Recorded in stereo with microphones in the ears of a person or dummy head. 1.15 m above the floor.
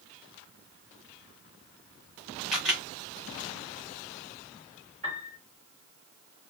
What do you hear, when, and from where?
2.5 s a camera shutter: 5° right (ahead or behind), 1.6 m
5.0 s a piano: 45° right (ahead or behind), 1.8 m